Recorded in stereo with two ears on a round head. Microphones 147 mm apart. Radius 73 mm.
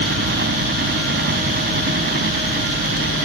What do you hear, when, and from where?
0.0 s a helicopter: 65° right (ahead or behind)